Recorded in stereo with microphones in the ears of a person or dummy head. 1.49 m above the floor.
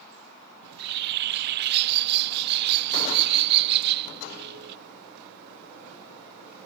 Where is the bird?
55° right (ahead or behind).